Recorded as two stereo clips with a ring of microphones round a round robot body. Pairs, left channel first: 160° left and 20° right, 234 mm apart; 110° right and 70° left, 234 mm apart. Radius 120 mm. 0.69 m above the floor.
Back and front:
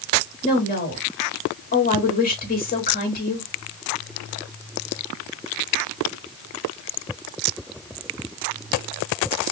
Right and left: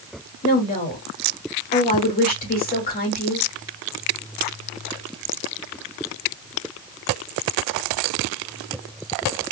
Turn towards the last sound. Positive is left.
turn(degrees=-160)